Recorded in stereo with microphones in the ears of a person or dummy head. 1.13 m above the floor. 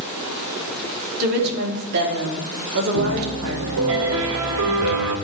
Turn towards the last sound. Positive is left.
turn(degrees=-70)  # may be behind; listen again after turning